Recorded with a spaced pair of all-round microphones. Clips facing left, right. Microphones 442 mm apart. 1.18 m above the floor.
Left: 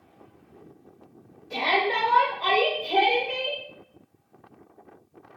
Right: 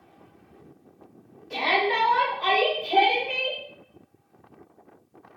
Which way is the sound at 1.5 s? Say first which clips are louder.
Right 1 dB; 45° right (ahead or behind).